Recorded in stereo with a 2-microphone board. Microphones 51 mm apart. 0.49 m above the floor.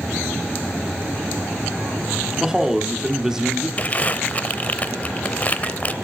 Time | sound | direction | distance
2.4 | a man speaking | 10° right (ahead or behind) | 1.1 m
3.8 | crumpling | 30° left (ahead or behind) | 0.6 m